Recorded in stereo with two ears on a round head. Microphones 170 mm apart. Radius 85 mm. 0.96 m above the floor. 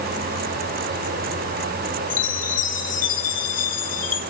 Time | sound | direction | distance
2.1 | a chime | 45° left (ahead or behind) | 2.5 m